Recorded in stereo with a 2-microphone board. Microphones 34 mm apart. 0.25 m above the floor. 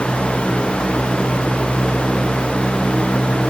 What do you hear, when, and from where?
Only background noise.